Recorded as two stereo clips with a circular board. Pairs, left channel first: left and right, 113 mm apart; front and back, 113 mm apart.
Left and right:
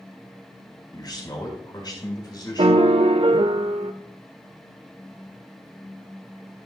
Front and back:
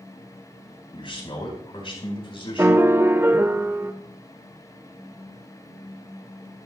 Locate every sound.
0.9 s a man speaking: 40° left, 4 m
2.6 s a piano: 110° right, 0.6 m